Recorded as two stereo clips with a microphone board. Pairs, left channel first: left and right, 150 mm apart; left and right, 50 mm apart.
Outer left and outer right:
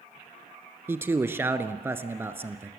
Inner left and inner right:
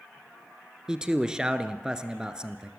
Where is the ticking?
No ticking in this recording.